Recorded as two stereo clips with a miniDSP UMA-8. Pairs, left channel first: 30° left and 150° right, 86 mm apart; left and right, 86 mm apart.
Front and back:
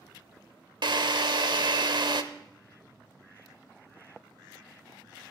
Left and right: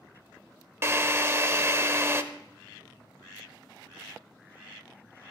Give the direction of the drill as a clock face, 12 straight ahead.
5 o'clock.